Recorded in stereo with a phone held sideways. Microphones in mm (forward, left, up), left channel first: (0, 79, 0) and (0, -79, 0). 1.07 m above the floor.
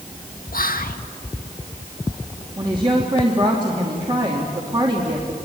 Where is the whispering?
65° left (ahead or behind), 1.8 m.